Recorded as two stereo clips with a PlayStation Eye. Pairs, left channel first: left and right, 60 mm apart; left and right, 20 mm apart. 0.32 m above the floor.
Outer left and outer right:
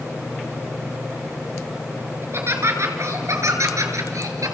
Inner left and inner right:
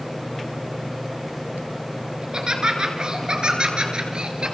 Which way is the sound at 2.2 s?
45° right (ahead or behind).